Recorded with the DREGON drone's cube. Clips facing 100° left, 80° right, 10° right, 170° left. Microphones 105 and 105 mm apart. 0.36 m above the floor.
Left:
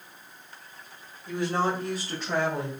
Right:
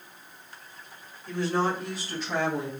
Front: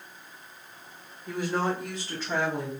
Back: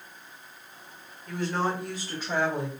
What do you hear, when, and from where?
1.3 s a woman speaking: 30° left, 1.0 m; by 2.7 s 110° left, 1.8 m